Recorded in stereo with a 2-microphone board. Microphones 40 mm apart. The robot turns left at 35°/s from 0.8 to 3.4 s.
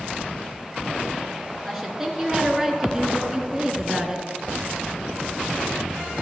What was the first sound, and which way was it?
A woman speaking, centre (ahead or behind).